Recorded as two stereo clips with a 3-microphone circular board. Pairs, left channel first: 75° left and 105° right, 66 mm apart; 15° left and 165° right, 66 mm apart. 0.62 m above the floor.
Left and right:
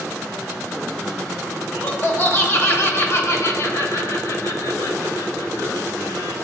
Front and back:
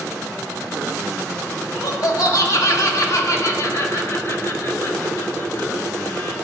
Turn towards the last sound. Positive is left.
turn(degrees=75)